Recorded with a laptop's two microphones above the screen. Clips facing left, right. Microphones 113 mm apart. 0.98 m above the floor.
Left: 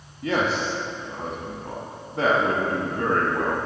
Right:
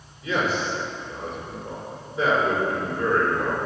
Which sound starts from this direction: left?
A man speaking, at 0.2 s.